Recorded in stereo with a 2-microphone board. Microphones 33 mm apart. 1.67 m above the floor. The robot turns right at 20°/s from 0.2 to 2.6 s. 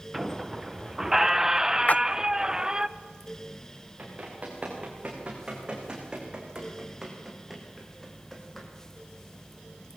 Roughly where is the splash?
Left.